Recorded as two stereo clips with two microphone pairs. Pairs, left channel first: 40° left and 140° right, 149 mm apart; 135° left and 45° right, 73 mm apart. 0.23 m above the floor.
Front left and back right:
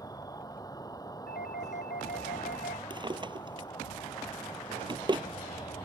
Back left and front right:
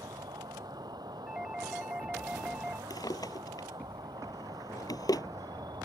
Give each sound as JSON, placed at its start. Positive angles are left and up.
{"t": 0.0, "sound": "an insect", "azimuth_deg": -25}
{"t": 1.3, "sound": "a doorbell", "azimuth_deg": 40}
{"t": 2.9, "sound": "a drawer", "azimuth_deg": 165}